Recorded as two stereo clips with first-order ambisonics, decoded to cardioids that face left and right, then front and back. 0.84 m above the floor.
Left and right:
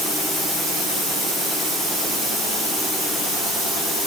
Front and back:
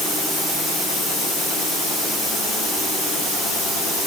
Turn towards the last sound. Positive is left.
No sound to turn to.